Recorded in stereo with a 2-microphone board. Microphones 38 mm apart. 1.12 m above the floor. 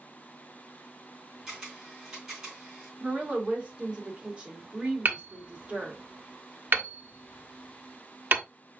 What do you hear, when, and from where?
1.5 s a camera shutter: 15° right (ahead or behind), 3.5 m
3.0 s a woman speaking: 30° right (ahead or behind), 2.5 m
5.0 s hammering: 55° right (ahead or behind), 1.0 m